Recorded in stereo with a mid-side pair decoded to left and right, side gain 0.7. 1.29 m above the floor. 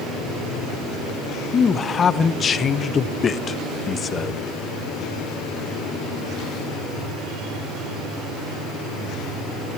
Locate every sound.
1.5 s a man speaking: 30° left, 0.6 m